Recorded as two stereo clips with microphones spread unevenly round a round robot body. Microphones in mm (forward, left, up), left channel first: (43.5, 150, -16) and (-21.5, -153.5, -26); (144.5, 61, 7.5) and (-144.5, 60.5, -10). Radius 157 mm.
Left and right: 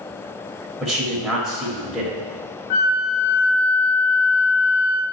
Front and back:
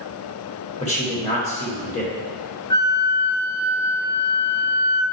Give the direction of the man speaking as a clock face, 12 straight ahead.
1 o'clock.